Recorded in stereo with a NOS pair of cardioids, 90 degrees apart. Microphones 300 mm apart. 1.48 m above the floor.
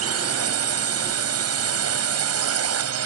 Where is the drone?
55° right.